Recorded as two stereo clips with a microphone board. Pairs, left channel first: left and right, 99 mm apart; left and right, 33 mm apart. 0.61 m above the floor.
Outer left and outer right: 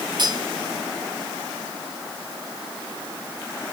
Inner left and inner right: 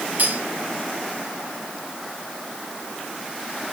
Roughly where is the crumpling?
I don't hear crumpling.